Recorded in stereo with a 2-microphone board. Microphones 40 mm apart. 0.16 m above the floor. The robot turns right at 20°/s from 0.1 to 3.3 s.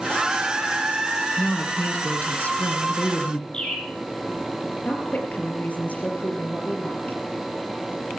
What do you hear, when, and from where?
1.4 s a woman speaking: 80° left, 1.9 m; by 3.4 s 120° left, 1.9 m
3.5 s a bird: 25° left (ahead or behind), 4.5 m
4.8 s a woman speaking: 45° left (ahead or behind), 4 m